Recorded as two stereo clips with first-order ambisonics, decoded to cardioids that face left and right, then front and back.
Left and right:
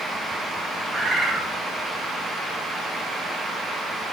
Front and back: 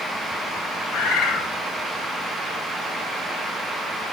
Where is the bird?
10° right, 0.5 m.